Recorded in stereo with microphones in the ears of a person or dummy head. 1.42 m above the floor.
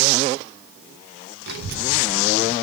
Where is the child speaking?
60° right (ahead or behind), 0.5 m; by 2.5 s 55° right (ahead or behind), 1.1 m.